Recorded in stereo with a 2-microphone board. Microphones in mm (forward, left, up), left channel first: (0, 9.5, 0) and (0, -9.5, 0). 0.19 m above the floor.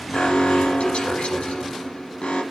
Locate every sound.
0.1 s an alarm: 75° left (ahead or behind), 5.5 m